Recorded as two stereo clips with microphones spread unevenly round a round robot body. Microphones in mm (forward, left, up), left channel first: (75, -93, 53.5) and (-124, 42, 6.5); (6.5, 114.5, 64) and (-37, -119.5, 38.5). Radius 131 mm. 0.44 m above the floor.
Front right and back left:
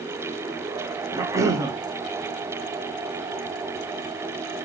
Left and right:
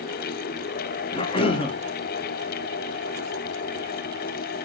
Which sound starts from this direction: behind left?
A cough, at 1.1 s.